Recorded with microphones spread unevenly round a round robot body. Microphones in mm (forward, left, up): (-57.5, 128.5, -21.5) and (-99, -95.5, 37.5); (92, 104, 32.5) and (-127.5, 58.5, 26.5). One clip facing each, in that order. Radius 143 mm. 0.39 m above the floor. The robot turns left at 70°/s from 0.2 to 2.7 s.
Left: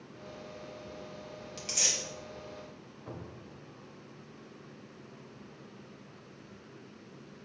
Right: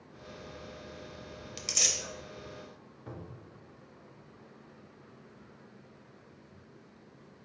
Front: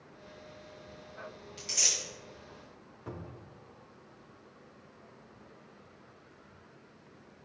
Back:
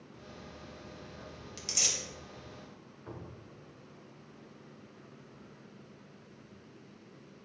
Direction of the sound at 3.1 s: 25° right.